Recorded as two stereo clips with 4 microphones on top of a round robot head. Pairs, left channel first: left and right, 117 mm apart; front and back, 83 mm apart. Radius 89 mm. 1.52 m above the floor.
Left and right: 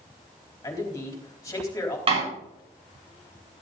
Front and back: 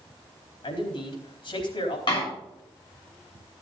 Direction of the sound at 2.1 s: 50° right.